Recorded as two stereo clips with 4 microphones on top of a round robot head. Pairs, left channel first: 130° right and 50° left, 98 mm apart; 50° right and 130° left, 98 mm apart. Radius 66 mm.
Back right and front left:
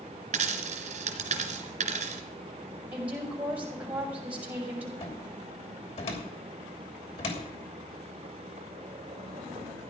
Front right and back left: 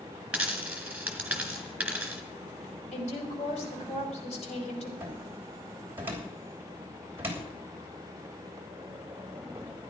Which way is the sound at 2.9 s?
30° right.